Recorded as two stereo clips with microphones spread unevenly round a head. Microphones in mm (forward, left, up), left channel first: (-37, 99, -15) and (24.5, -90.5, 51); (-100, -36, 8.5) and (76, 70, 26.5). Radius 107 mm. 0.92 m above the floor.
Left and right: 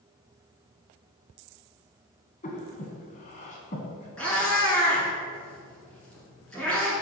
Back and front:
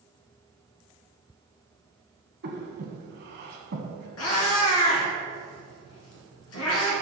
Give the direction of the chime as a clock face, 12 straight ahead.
I don't hear a chime.